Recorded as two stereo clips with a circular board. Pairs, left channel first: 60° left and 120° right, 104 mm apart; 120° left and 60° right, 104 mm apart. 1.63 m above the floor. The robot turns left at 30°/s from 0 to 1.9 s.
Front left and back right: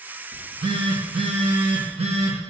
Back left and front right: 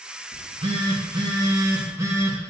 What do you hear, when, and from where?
0.3 s a phone buzzing: 75° right, 1.7 m; by 2.4 s 125° right, 1.7 m